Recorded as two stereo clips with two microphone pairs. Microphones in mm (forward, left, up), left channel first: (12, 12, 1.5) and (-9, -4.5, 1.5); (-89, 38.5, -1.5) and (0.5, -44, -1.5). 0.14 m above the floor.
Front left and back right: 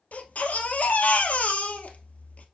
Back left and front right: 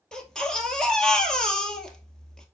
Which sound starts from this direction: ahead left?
A baby crying, at 0.1 s.